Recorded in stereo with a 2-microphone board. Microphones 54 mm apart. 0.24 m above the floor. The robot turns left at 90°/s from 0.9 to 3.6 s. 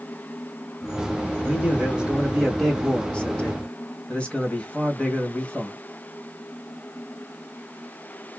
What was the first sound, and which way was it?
A man speaking, 20° right (ahead or behind).